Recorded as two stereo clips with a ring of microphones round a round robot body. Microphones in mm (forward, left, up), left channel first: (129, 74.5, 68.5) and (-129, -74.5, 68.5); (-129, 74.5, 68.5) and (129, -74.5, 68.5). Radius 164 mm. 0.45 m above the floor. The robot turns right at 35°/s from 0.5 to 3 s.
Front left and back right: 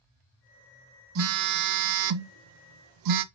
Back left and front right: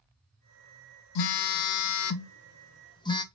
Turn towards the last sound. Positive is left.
turn(degrees=-135)